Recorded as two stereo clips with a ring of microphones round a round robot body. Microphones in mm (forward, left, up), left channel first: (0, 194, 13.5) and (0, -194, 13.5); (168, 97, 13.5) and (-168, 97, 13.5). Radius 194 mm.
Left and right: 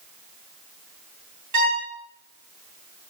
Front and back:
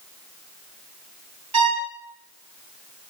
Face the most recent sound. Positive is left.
turn(degrees=-140)